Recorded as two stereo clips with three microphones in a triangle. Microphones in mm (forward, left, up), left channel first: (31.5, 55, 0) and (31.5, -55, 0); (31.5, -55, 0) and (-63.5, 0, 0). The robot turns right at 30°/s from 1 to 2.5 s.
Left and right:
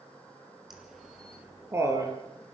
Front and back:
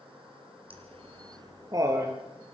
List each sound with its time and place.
0.7 s laughter: straight behind, 4.5 m; by 2.2 s 145° right, 4.5 m